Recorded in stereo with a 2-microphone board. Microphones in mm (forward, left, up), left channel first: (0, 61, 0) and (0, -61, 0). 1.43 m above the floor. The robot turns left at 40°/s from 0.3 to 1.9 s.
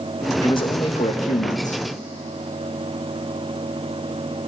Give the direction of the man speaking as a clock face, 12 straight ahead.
7 o'clock.